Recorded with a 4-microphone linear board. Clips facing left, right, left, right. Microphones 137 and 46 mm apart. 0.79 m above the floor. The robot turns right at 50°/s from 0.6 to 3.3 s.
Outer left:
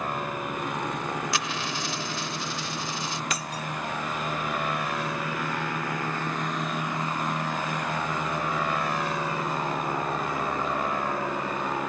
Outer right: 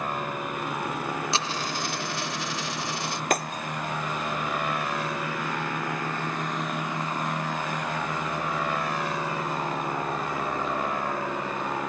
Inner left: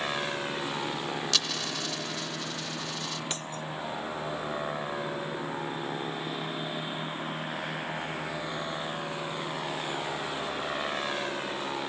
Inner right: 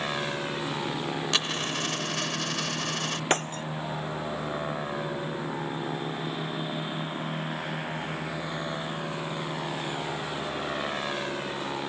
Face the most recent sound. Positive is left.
turn(degrees=-50)  # may be behind; listen again after turning